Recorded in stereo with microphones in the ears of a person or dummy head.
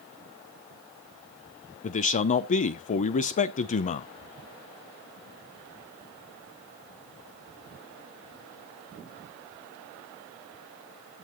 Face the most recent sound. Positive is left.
turn(degrees=40)  # may be behind; listen again after turning